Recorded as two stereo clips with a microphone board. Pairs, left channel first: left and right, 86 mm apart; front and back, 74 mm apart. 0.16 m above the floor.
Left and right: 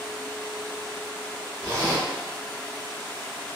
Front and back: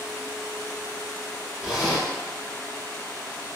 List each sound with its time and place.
1.6 s a zipper: 95° right, 1.2 m